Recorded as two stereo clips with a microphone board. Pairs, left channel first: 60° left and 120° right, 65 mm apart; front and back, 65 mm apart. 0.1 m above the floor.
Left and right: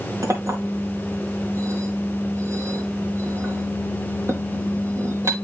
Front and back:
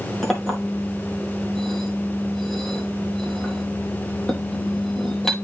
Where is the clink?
85° right, 2 m.